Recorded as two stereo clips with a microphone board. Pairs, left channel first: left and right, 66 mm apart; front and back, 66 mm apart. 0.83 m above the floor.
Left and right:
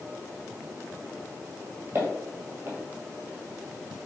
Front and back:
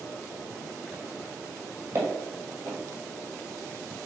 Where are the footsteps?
140° right, 1.4 m.